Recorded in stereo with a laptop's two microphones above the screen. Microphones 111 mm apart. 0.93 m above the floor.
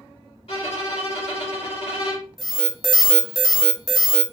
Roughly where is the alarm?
Centre.